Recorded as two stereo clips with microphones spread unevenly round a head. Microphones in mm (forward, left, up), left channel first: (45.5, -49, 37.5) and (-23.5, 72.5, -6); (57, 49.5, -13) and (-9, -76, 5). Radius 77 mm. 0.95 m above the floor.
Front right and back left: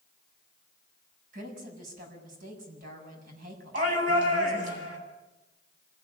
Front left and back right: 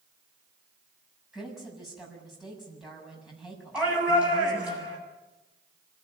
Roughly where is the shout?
Behind.